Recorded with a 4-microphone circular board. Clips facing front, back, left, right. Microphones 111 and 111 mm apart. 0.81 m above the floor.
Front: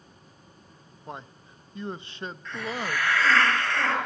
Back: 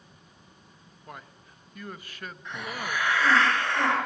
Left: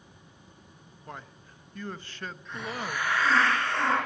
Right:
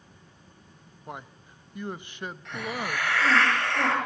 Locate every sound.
1.1 s a man speaking: 35° right, 0.7 m
2.5 s a hiss: 110° right, 9.5 m